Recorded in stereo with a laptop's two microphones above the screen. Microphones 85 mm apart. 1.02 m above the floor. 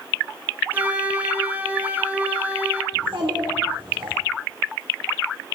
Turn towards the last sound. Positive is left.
turn(degrees=-75)  # may be behind; listen again after turning